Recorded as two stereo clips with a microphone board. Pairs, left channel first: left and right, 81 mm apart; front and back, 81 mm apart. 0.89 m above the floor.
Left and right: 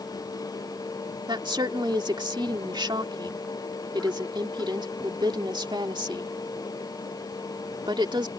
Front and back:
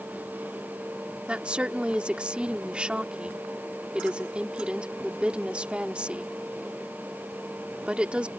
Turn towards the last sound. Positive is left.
turn(degrees=-105)